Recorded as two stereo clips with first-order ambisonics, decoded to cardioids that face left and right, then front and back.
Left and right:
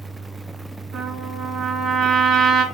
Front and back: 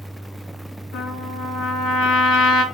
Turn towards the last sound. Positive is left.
turn(degrees=-35)